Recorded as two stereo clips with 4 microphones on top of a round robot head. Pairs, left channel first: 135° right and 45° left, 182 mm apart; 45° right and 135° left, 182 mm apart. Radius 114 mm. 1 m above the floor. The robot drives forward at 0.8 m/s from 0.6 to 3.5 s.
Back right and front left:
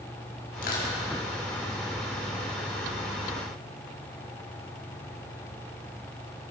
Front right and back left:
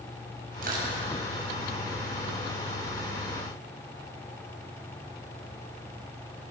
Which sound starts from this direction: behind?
Crushing, at 0.6 s.